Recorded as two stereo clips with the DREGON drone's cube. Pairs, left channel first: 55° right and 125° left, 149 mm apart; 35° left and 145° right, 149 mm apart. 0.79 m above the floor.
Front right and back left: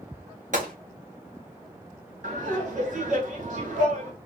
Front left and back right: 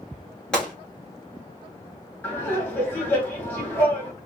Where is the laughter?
110° left, 1.7 m.